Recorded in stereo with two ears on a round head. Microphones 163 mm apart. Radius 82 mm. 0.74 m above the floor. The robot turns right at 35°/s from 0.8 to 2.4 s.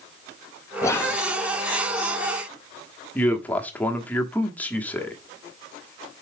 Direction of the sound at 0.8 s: 20° left (ahead or behind).